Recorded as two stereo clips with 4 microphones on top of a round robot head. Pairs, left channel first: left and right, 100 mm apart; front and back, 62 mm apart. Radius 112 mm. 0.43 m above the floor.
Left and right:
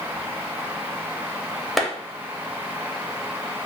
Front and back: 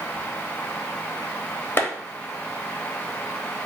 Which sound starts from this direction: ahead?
A clap, at 1.8 s.